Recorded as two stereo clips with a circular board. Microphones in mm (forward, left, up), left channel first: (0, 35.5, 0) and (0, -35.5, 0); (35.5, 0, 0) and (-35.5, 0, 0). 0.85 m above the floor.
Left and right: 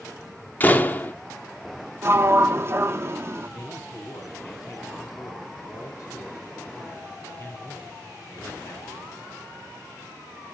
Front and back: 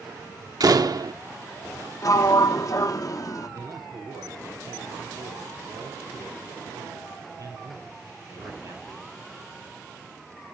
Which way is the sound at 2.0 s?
35° right.